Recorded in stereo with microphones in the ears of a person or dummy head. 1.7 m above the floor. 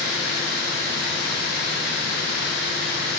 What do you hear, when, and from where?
0.0 s running water: 65° left (ahead or behind), 4 m